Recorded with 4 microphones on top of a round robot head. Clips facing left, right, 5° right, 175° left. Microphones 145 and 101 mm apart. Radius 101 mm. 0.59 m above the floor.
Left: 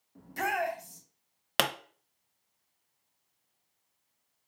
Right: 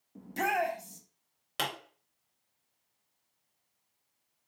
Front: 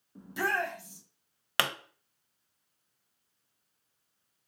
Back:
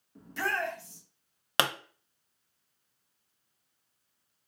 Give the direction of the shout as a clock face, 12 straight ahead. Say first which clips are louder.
Right 1 dB, front 1 dB; 2 o'clock.